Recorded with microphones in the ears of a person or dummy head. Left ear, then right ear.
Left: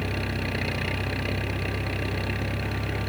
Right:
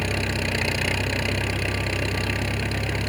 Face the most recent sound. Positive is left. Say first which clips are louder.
# right 5 dB
turn(degrees=-25)  # may be behind; listen again after turning